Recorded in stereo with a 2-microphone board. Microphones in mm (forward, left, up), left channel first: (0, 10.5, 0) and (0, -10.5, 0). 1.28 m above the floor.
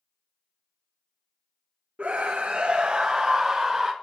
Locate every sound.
2.0 s a scream: 85° right, 0.7 m; by 3.9 s 5° right (ahead or behind), 0.9 m